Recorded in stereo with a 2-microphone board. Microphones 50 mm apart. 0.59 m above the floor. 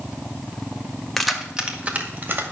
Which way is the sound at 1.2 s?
5° left (ahead or behind).